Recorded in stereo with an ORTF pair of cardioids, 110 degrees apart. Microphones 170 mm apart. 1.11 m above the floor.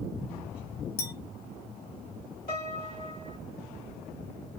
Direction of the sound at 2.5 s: 60° left.